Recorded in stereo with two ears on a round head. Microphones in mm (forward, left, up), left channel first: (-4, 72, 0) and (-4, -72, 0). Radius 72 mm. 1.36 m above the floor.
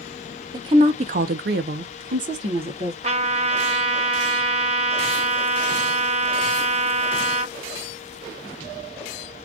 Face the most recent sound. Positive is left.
turn(degrees=-40)  # may be behind; listen again after turning